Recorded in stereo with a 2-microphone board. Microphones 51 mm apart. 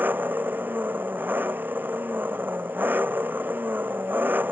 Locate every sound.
0.0 s an engine running: 40° right (ahead or behind)